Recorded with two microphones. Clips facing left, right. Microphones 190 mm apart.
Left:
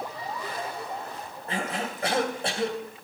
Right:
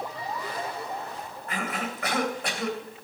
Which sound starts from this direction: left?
A cough, at 1.5 s.